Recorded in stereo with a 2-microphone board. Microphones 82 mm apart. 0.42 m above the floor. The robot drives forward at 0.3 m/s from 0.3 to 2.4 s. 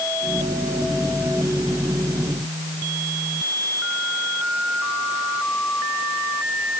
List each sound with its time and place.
Only background noise.